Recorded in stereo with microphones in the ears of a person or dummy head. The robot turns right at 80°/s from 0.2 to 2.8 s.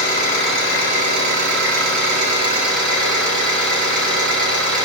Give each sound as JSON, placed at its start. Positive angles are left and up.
{"t": 0.0, "sound": "an engine running", "azimuth_deg": 160, "distance_m": 4.0}